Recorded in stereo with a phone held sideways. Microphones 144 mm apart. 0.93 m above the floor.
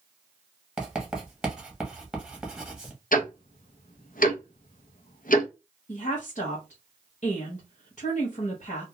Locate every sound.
0.8 s writing: 5° right (ahead or behind), 0.9 m
3.1 s ticking: 75° left (ahead or behind), 0.5 m
5.9 s a woman speaking: 60° left (ahead or behind), 0.8 m